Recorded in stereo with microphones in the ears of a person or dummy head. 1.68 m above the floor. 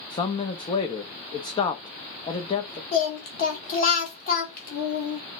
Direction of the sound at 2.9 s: 45° left (ahead or behind).